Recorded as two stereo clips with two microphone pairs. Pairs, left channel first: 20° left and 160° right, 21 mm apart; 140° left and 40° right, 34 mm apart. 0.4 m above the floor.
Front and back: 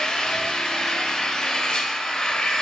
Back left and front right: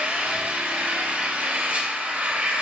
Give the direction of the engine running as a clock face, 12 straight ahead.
1 o'clock.